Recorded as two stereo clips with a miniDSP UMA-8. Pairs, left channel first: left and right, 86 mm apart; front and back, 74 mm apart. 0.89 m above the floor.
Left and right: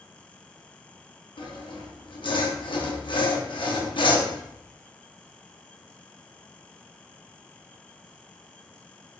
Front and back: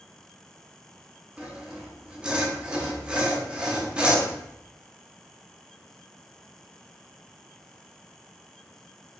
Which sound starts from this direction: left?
Sawing, at 1.4 s.